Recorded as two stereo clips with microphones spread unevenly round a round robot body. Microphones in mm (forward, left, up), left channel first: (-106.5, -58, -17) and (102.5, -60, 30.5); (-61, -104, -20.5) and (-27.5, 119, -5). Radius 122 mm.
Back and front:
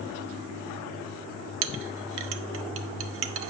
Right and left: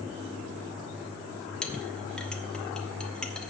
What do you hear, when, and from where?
1.6 s a clink: 15° right, 0.5 m